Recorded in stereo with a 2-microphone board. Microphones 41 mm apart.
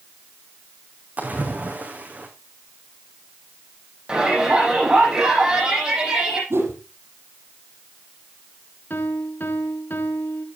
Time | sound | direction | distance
1.2 | a splash | 40° right (ahead or behind) | 3 m
4.1 | a shout | 20° right (ahead or behind) | 8.5 m
6.5 | a whoosh | 75° right (ahead or behind) | 5 m
8.9 | a piano | 50° left (ahead or behind) | 2.0 m